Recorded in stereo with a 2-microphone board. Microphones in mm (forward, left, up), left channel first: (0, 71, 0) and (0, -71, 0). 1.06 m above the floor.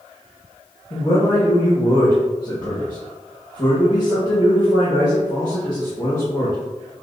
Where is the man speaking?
35° left (ahead or behind), 1.5 m.